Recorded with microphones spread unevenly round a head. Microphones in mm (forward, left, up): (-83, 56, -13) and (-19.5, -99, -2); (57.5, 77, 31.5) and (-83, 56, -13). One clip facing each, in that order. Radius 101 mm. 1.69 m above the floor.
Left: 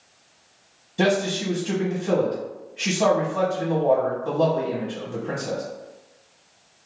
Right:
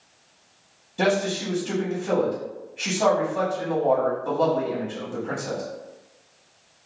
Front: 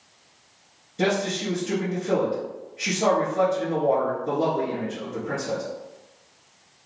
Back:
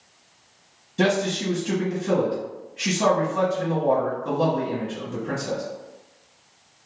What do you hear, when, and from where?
1.0 s a man speaking: 165° right, 1.5 m